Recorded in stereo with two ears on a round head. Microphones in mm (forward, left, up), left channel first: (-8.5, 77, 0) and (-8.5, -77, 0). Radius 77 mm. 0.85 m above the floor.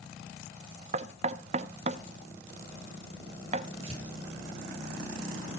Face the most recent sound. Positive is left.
turn(degrees=-35)  # may be behind; listen again after turning